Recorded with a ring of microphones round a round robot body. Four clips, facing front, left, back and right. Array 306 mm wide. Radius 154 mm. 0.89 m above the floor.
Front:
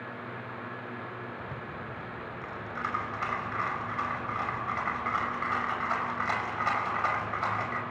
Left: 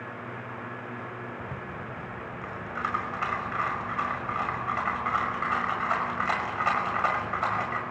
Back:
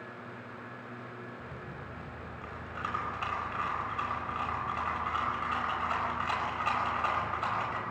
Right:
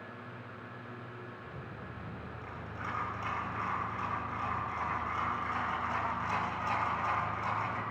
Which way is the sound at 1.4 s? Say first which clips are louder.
Left 8 dB, front 4 dB; 80° left.